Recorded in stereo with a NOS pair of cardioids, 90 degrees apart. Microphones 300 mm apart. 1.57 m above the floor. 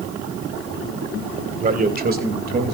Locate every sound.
1.6 s a man speaking: 25° right, 1.5 m; by 2.7 s 35° right, 3 m